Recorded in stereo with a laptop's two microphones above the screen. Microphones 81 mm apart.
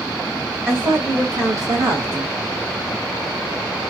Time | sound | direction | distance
0.7 | a woman speaking | 25° right (ahead or behind) | 1.4 m